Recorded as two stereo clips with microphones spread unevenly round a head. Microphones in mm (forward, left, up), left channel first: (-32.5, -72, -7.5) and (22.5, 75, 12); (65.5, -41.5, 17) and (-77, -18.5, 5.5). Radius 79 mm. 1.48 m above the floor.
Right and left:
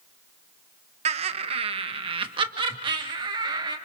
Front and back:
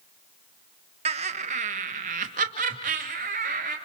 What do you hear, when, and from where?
1.1 s laughter: 115° left, 1.2 m; by 3.8 s 130° left, 3.5 m